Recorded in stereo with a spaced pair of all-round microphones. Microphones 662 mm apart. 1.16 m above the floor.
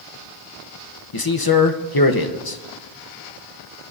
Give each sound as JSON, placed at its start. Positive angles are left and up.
{"t": 1.1, "sound": "a man speaking", "side_deg": 35, "distance_m": 0.9}